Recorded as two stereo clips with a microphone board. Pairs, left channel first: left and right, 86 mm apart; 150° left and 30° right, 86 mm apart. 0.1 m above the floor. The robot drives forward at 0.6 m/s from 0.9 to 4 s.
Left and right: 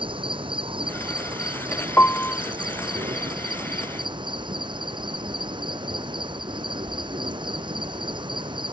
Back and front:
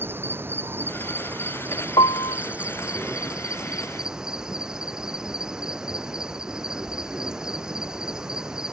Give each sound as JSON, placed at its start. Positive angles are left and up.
{"t": 0.0, "sound": "an insect", "azimuth_deg": -95}
{"t": 2.0, "sound": "a piano", "azimuth_deg": 155}